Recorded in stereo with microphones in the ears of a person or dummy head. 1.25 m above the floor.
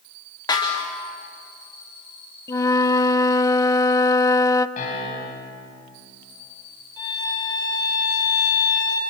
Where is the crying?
I don't hear crying.